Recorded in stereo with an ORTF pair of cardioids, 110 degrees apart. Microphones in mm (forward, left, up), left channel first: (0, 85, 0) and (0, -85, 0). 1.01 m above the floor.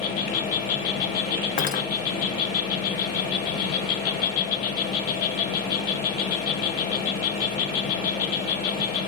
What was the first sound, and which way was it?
An insect, 60° left.